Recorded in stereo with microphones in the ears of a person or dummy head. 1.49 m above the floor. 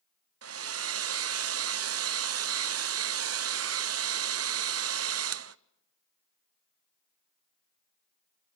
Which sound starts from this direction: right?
A hair dryer, at 0.4 s.